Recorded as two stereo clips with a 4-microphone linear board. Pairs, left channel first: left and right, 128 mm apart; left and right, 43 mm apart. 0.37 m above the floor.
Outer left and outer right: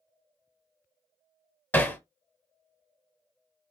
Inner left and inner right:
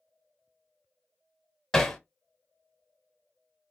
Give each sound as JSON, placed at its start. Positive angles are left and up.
{"t": 1.7, "sound": "hammering", "side_deg": 15, "distance_m": 0.7}